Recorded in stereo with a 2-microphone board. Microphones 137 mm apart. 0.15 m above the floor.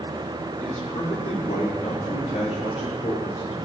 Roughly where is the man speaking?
Left.